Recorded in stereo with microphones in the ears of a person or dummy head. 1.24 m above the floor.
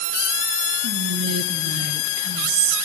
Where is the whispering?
60° right (ahead or behind), 0.8 m.